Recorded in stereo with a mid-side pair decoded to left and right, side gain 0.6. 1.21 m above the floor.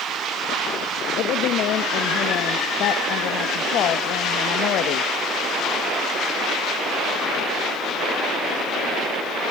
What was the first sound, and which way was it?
A woman speaking, 60° left.